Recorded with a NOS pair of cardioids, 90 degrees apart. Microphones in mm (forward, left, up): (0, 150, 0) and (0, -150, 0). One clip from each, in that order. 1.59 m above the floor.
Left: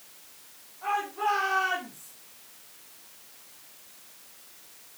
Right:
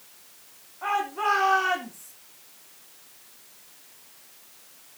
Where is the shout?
60° right, 4 m; by 2.1 s 35° right, 4.5 m.